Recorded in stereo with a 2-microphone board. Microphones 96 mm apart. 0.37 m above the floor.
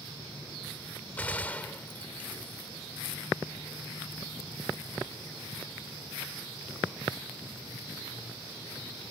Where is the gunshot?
15° left (ahead or behind).